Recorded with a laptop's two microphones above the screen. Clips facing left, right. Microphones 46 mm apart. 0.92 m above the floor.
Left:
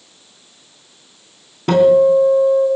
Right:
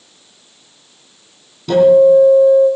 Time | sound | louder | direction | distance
1.7 | a guitar | right 3 dB | 60° left (ahead or behind) | 2 m